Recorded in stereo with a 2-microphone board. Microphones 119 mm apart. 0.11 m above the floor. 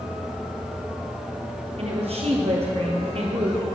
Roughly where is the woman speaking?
Right.